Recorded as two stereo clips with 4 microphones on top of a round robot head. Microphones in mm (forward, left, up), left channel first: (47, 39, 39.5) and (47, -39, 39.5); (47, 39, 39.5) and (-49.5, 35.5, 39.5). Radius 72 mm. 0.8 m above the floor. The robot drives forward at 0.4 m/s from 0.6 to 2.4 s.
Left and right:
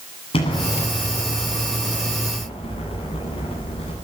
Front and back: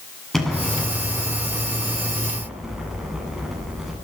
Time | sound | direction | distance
0.3 | an explosion | 90° left | 8.5 m